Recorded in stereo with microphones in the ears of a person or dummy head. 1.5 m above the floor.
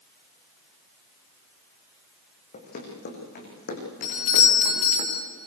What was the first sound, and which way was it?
Running footsteps, 45° left (ahead or behind).